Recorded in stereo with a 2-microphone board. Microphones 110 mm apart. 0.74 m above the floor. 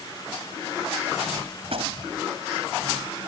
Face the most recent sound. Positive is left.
turn(degrees=-65)  # may be behind; listen again after turning